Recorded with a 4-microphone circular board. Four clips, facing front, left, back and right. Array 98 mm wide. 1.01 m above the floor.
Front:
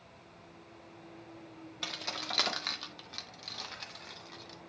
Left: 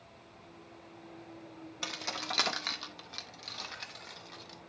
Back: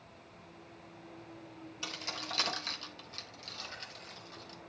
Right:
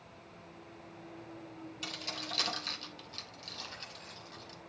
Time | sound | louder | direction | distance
1.8 | keys jangling | left 6 dB, front 2 dB | 60° left | 1.2 m